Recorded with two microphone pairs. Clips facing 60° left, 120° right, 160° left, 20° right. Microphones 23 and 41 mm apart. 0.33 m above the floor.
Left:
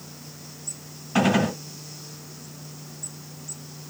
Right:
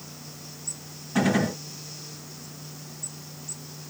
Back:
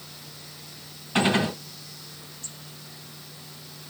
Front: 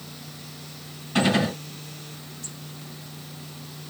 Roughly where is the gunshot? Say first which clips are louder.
Left 2 dB, front 1 dB; left.